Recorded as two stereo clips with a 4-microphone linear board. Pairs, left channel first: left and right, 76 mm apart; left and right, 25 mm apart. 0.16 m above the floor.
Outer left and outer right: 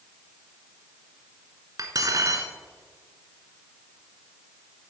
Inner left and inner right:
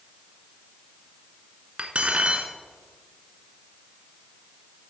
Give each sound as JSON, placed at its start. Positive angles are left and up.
{"t": 1.8, "sound": "cutlery clinking", "side_deg": -50, "distance_m": 1.1}